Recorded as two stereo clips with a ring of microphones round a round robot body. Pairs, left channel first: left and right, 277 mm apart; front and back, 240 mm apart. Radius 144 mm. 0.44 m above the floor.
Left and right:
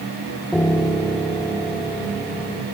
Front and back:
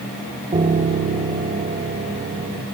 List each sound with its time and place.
0.5 s a piano: 170° left, 0.9 m